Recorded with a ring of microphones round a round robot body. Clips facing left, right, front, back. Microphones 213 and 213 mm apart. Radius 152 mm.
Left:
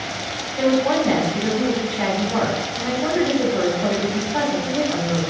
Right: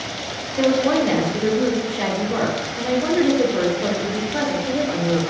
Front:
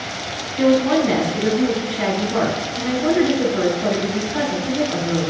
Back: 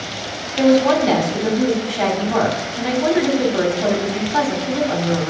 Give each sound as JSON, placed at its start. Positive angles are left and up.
{"t": 0.6, "sound": "a woman speaking", "azimuth_deg": -150, "distance_m": 1.9}